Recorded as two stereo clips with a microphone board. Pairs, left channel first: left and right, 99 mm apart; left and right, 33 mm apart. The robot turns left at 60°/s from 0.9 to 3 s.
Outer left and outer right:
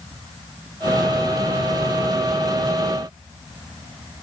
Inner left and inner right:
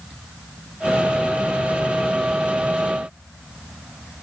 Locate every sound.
Only background noise.